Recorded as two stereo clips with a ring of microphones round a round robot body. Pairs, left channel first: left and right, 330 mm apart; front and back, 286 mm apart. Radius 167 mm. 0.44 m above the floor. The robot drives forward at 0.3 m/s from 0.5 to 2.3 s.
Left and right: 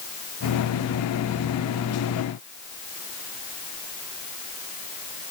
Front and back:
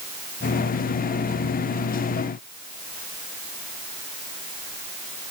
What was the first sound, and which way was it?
Only background noise.